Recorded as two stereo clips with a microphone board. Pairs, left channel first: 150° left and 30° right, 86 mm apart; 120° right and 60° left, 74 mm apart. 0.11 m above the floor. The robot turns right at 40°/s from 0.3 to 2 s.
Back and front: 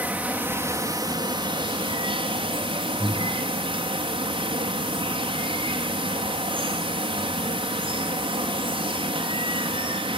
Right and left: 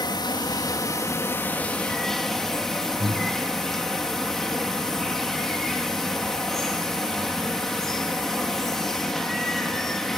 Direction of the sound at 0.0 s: 100° right.